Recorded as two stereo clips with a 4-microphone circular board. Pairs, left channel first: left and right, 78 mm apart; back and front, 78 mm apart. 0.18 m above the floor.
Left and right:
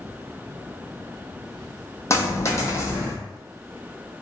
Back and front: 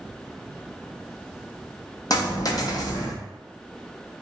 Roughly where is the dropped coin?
Behind left.